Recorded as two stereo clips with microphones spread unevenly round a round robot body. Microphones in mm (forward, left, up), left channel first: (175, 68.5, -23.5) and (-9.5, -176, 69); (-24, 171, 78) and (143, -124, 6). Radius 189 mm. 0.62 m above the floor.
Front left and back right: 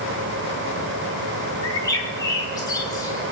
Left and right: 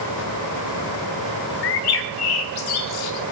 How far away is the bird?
About 0.8 m.